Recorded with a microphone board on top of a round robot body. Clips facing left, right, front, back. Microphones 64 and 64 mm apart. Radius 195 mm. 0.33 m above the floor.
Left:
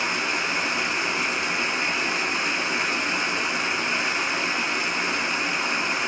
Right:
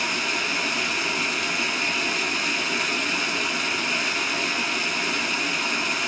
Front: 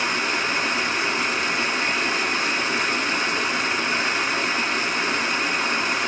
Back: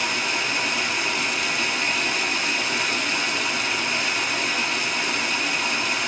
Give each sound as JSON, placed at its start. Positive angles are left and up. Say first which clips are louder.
{"t": 0.0, "sound": "running water", "louder": "left 1 dB, front 2 dB", "azimuth_deg": 40, "distance_m": 1.5}